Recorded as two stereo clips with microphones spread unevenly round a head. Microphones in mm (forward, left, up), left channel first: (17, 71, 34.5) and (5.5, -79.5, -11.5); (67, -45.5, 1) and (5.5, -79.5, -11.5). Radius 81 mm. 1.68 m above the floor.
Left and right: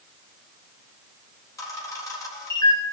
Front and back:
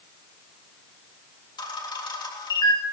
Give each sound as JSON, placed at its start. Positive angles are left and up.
{"t": 1.6, "sound": "a camera shutter", "azimuth_deg": 15, "distance_m": 3.5}